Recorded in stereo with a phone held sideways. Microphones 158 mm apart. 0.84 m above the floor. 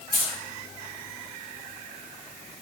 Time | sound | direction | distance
0.1 | keys jangling | 50° left (ahead or behind) | 1.4 m